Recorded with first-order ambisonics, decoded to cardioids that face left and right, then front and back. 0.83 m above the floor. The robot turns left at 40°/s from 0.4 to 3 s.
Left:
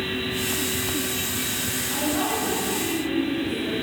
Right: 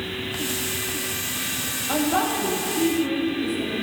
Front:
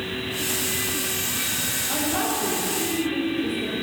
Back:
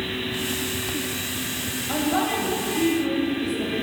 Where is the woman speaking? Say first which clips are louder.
Right 4 dB, back 4 dB; 110° right, 4 m; by 3.7 s 150° right, 4 m.